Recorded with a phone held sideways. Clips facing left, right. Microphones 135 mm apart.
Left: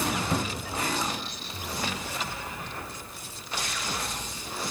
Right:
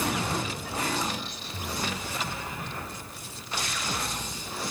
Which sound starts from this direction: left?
A cupboard door, at 0.3 s.